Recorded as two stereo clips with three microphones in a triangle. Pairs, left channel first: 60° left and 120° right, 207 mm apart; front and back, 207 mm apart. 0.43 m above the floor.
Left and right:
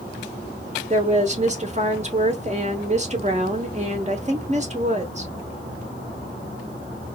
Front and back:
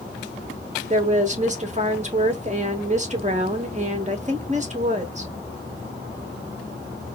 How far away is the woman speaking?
About 1.0 m.